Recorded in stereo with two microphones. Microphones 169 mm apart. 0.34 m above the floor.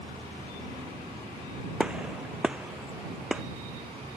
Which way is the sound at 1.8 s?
5° right (ahead or behind).